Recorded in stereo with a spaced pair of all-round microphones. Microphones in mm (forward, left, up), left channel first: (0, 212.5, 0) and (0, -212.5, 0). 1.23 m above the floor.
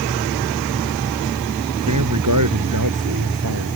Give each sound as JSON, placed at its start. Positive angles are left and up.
{"t": 1.8, "sound": "a man speaking", "side_deg": -45}